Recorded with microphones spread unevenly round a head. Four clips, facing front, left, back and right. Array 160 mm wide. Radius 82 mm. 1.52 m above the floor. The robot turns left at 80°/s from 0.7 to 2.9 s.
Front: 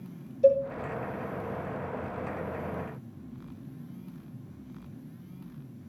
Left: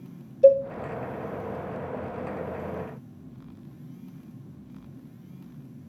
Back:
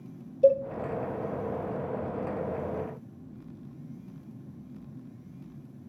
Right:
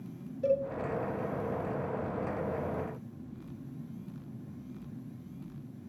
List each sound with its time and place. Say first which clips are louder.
0.4 s a cowbell: left 13 dB, even; 145° left, 4 m